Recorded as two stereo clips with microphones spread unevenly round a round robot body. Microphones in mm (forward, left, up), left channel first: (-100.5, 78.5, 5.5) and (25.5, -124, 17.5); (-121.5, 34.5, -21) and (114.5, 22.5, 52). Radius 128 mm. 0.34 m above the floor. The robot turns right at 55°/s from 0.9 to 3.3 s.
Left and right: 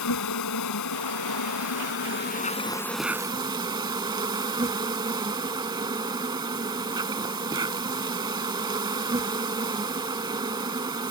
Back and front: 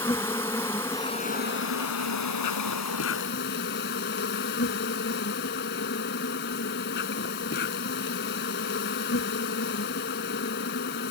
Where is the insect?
95° left; by 11.1 s 130° right.